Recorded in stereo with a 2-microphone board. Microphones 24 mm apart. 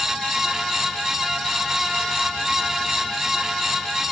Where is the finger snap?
No finger snap in this recording.